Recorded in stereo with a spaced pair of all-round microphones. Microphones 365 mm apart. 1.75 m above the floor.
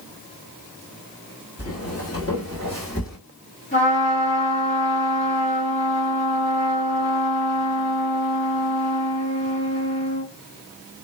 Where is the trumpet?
35° left (ahead or behind), 1.8 m.